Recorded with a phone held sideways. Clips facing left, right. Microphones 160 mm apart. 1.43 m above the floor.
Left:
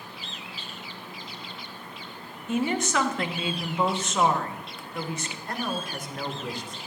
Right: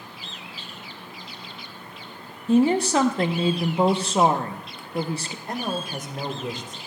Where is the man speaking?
20° right (ahead or behind), 1.3 m.